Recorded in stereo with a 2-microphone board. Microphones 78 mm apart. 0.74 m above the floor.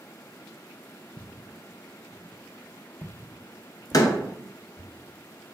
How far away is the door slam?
About 0.5 m.